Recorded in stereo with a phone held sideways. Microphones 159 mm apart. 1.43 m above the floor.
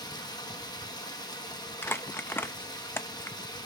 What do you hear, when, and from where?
0.0 s running water: 25° left (ahead or behind), 1.2 m
1.8 s crumpling: 15° left (ahead or behind), 0.5 m